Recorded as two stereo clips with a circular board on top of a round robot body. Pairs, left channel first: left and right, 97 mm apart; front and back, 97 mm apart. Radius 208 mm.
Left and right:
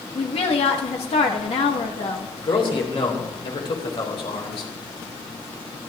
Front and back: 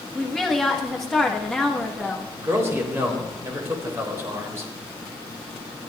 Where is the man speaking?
115° left, 3.5 m.